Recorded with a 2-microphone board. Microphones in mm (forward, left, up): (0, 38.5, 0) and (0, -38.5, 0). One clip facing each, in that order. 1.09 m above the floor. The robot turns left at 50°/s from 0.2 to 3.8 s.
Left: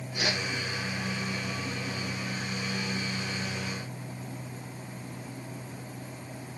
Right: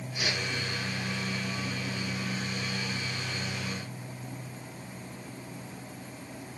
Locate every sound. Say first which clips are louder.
0.1 s a whoosh: left 2 dB; 80° left, 2.5 m; by 0.4 s 70° left (ahead or behind), 2.5 m